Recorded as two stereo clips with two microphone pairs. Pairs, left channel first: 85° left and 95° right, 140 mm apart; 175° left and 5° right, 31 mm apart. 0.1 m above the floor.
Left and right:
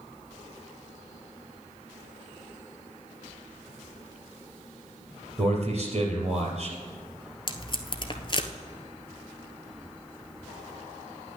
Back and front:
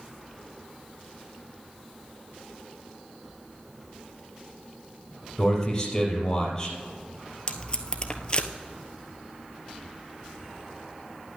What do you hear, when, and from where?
5.4 s a man speaking: 120° right, 3 m
7.5 s tape being pulled: 125° left, 1.0 m